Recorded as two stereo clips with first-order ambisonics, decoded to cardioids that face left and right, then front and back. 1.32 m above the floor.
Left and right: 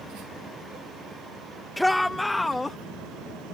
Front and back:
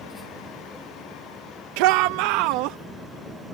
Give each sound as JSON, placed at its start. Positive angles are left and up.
{"t": 1.8, "sound": "a shout", "azimuth_deg": 180}